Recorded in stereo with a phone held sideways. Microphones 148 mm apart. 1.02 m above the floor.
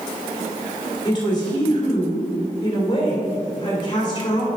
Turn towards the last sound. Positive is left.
turn(degrees=30)  # may be behind; listen again after turning